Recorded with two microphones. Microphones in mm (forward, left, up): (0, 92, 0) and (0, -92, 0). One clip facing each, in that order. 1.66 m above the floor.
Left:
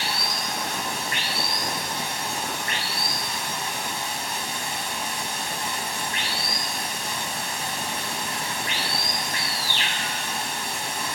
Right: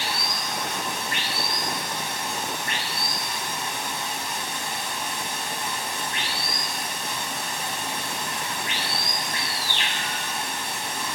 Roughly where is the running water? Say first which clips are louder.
Even; centre.